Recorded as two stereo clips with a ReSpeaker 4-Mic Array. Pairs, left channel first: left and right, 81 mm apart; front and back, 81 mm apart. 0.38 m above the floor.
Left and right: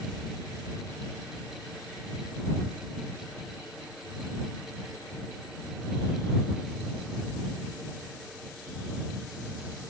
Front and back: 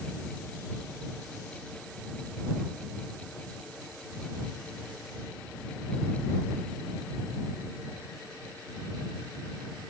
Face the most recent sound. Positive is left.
No sound to turn to.